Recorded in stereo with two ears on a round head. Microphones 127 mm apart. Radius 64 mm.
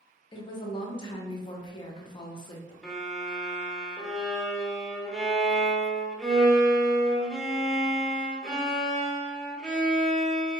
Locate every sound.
0.3 s a woman speaking: 35° left (ahead or behind), 0.6 m
2.8 s a violin: 5° left (ahead or behind), 0.6 m